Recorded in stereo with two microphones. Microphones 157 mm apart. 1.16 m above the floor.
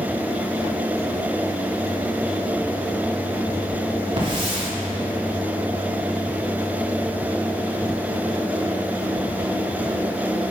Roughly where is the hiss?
Right.